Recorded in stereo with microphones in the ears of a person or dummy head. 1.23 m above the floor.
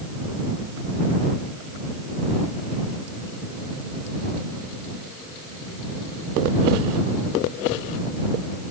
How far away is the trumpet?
I don't hear a trumpet.